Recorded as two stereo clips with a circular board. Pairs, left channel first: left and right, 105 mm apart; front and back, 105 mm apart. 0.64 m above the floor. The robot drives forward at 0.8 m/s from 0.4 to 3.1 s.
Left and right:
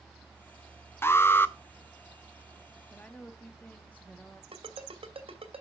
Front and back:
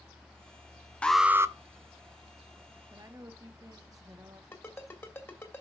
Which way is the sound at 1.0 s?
65° left.